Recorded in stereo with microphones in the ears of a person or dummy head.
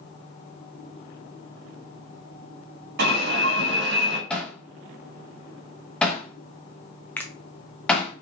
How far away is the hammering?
About 0.9 m.